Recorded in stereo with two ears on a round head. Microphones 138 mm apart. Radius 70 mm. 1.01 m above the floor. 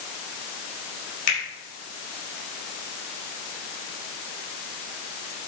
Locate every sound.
1.3 s a finger snap: 55° left (ahead or behind), 4.5 m